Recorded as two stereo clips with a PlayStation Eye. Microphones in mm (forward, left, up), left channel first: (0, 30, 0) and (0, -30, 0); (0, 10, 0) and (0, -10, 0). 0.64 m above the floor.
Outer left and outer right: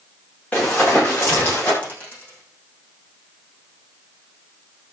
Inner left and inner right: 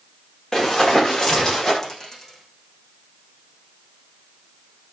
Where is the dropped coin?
25° left (ahead or behind), 8.5 m.